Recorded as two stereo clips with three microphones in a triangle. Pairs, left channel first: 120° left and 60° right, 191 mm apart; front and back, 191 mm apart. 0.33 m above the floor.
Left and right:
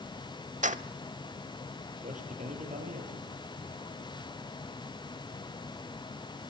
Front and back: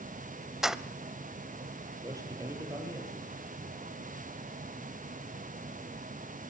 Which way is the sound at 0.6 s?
95° right.